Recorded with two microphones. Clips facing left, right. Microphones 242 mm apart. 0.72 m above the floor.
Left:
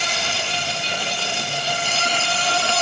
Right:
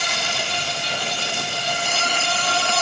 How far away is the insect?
About 4.5 m.